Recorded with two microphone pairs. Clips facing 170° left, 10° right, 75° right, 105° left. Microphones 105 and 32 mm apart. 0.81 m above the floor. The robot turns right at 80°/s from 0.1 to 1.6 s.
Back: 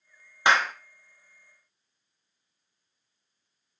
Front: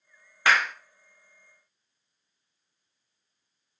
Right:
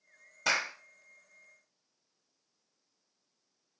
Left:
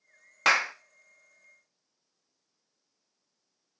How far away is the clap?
About 0.7 m.